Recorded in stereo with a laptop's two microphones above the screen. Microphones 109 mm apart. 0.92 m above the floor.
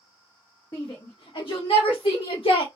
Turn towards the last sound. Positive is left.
turn(degrees=65)  # may be behind; listen again after turning